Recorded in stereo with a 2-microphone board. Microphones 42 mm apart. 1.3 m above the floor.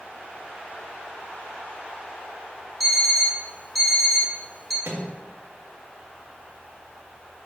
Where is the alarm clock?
5° left (ahead or behind), 2.5 m.